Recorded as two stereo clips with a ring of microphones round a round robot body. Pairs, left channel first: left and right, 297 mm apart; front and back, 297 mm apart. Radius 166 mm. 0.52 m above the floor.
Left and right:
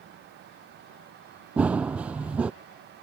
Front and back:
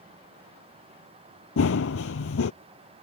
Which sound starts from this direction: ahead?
Running footsteps, at 1.6 s.